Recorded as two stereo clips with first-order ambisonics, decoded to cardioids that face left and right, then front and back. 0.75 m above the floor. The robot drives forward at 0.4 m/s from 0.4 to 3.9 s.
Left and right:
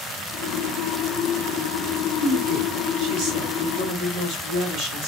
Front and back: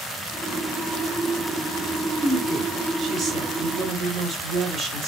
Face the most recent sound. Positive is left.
turn(degrees=-125)